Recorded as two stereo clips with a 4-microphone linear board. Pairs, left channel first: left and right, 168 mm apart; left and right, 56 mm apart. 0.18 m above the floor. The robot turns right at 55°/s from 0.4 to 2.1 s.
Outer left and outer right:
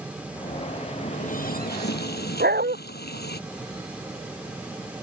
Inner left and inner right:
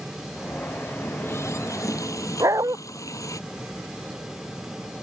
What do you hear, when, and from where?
1.0 s a running tap: 40° left; by 3.4 s 100° left
2.4 s a dog barking: 75° right (ahead or behind)